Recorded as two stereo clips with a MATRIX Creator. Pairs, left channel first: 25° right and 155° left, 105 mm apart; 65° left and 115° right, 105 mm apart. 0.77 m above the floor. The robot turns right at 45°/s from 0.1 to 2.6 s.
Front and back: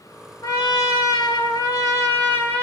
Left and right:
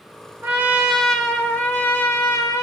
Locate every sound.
0.4 s a trumpet: 50° right, 0.9 m; by 2.6 s 50° left, 0.9 m